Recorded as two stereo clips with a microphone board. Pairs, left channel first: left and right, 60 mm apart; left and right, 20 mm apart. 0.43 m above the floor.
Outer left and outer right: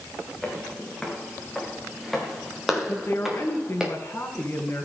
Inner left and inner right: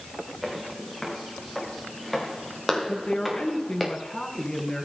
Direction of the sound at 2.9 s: 35° left (ahead or behind).